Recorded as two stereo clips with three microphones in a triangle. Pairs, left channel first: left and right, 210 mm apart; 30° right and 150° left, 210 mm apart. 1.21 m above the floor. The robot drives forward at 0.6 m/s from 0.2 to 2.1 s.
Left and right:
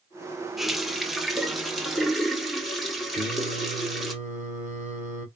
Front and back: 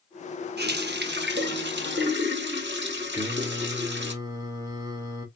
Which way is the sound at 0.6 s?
Straight behind.